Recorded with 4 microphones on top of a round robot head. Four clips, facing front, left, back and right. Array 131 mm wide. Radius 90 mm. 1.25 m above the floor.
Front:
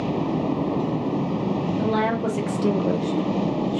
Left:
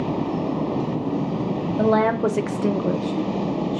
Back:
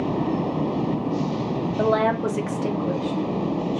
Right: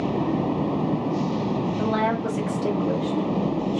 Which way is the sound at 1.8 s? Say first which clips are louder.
Left 8 dB, back 4 dB; 135° left.